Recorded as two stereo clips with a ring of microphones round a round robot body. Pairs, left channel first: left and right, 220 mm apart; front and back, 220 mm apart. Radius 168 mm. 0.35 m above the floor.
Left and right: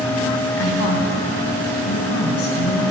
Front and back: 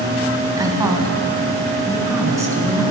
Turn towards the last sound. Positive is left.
turn(degrees=105)